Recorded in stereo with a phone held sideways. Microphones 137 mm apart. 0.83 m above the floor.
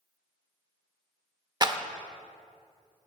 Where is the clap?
30° right (ahead or behind), 0.7 m.